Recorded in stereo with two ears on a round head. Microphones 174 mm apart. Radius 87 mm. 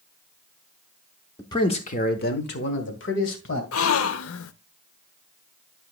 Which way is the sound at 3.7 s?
75° left (ahead or behind).